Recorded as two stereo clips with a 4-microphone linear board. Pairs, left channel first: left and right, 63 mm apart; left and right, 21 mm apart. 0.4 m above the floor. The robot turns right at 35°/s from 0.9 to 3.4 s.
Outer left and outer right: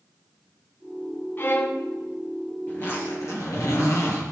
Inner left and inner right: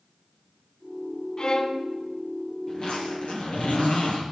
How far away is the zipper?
About 4.5 m.